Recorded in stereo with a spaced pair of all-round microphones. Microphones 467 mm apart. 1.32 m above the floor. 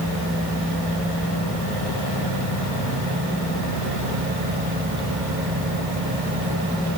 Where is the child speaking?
No child speaking in this recording.